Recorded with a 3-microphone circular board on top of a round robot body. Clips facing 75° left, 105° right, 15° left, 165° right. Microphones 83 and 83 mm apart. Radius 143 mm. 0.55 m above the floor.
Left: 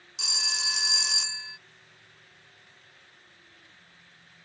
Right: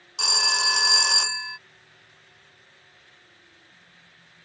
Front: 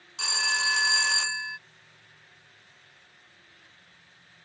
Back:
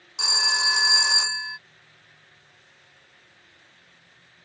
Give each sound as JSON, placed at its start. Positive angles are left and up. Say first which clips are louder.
{"t": 0.2, "sound": "a phone ringing", "louder": "right 11 dB, back 2 dB", "azimuth_deg": -95}